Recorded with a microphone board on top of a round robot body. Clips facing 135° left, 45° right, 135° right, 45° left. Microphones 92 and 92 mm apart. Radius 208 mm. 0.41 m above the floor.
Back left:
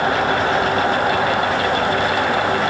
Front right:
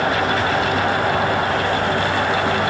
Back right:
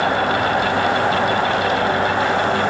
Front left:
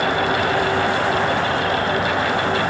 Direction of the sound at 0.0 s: 165° right.